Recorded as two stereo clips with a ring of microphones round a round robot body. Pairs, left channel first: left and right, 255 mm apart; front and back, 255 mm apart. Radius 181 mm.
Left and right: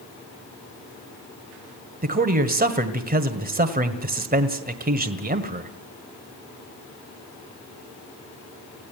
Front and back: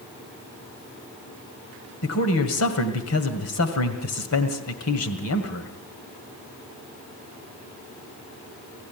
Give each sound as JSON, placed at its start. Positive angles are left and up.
{"t": 2.0, "sound": "a man speaking", "azimuth_deg": -35, "distance_m": 1.8}